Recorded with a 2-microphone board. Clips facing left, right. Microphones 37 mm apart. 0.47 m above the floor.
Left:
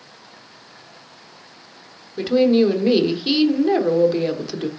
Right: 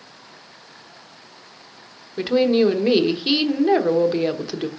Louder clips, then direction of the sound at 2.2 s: Left 1 dB; 15° right (ahead or behind).